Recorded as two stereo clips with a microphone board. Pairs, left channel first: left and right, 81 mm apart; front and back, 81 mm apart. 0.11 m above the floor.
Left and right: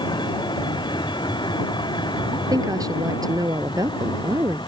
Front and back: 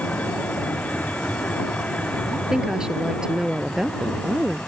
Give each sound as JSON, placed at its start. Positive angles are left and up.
{"t": 0.0, "sound": "a vehicle", "azimuth_deg": 70}
{"t": 2.3, "sound": "a woman speaking", "azimuth_deg": -100}